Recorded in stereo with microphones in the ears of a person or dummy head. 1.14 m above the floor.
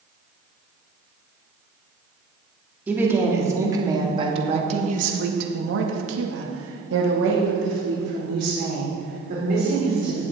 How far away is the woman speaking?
About 3 m.